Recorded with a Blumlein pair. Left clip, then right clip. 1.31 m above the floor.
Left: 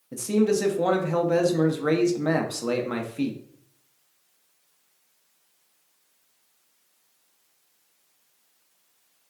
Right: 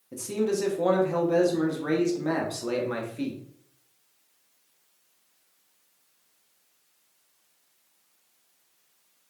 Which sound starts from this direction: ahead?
A man speaking, at 0.1 s.